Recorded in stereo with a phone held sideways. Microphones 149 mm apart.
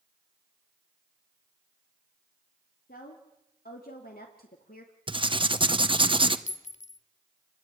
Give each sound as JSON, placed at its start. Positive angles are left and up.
{"t": 2.9, "sound": "a woman speaking", "side_deg": 85, "distance_m": 3.0}
{"t": 5.1, "sound": "writing", "side_deg": -35, "distance_m": 1.1}
{"t": 6.5, "sound": "a clink", "side_deg": 50, "distance_m": 0.6}